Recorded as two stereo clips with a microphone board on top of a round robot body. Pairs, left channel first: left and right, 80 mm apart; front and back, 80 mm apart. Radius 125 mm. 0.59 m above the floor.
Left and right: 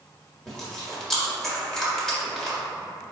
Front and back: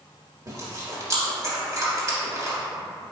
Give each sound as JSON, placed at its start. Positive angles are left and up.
{"t": 0.5, "sound": "chewing", "azimuth_deg": 170, "distance_m": 1.3}